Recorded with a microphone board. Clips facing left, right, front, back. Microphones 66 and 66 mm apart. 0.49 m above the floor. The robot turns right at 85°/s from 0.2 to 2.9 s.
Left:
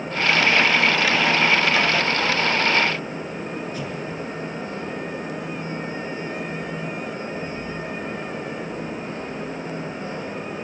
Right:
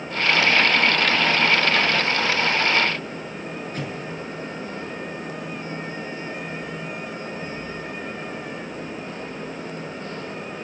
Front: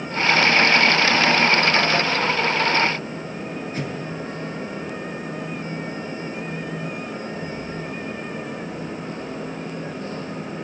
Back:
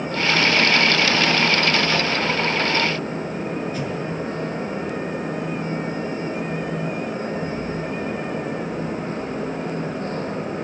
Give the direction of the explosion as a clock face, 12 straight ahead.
2 o'clock.